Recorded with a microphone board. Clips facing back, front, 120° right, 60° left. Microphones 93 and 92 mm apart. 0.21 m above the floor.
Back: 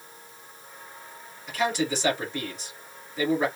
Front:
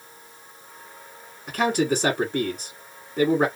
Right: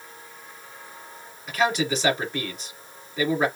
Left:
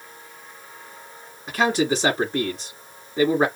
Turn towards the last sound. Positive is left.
turn(degrees=15)